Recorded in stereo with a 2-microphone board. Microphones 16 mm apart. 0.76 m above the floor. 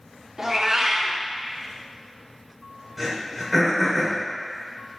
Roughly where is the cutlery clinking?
No cutlery clinking in this recording.